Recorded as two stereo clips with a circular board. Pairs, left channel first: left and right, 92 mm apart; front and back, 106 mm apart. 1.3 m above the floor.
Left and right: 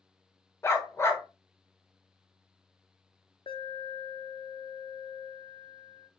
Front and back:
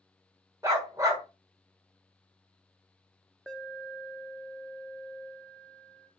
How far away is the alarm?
About 0.6 m.